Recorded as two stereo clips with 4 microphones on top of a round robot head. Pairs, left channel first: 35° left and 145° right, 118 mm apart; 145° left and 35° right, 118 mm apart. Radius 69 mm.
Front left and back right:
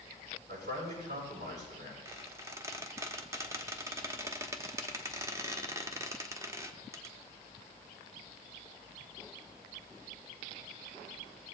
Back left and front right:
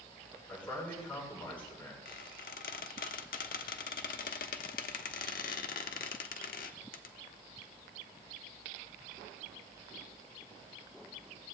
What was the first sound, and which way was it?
A man speaking, 140° right.